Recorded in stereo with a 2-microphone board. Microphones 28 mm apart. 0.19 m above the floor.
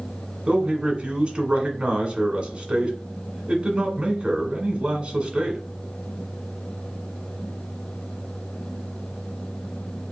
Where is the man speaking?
40° right (ahead or behind), 1.7 m.